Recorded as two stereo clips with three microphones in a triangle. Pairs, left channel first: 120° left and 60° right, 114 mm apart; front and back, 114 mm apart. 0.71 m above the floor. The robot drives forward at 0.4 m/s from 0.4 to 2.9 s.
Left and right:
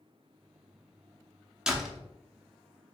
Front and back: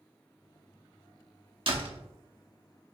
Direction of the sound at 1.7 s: 145° right.